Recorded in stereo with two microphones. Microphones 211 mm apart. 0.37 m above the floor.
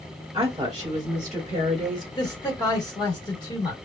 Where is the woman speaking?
15° right (ahead or behind), 1.6 m; by 2.0 s 25° right (ahead or behind), 1.5 m.